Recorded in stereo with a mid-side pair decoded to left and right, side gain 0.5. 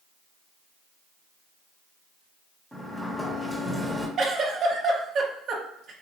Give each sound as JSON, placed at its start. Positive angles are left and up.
{"t": 2.7, "sound": "a sliding door", "azimuth_deg": 5, "distance_m": 1.0}
{"t": 4.2, "sound": "a giggle", "azimuth_deg": -55, "distance_m": 0.8}